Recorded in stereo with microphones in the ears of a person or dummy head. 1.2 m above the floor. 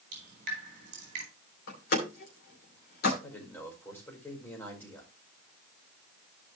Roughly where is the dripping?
Right.